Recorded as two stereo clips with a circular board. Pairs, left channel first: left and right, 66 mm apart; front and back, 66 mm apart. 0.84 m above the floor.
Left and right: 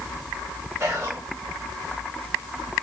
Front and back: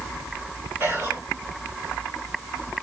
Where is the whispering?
140° right, 0.9 m.